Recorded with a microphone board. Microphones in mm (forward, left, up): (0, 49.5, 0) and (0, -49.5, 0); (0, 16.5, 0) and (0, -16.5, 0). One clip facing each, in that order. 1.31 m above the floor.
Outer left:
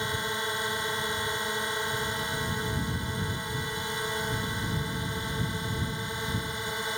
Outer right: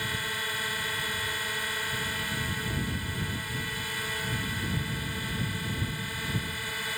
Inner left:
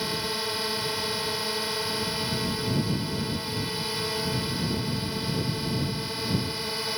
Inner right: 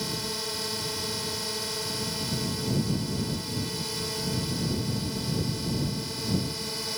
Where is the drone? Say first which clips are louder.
Outer left 3 dB, inner left 3 dB; 25° left (ahead or behind).